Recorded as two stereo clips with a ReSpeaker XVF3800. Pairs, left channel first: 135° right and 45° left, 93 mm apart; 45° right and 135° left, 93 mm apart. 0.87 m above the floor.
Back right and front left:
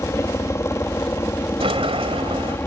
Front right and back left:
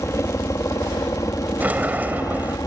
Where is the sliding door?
60° left.